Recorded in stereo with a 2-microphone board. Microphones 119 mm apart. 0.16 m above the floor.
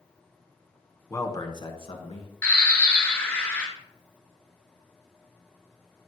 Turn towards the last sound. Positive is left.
turn(degrees=15)  # may be behind; listen again after turning